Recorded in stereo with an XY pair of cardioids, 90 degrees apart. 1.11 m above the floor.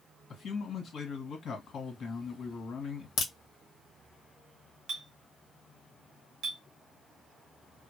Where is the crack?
70° left, 1.3 m.